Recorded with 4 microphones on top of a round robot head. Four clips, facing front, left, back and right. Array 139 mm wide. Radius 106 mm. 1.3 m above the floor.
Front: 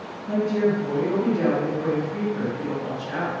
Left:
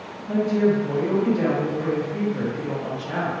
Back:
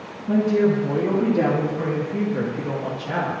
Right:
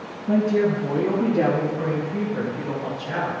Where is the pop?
I don't hear a pop.